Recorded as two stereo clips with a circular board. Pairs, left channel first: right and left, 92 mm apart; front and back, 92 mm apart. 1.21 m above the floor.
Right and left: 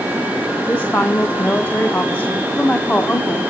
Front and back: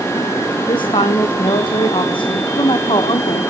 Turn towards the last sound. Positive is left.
turn(degrees=-20)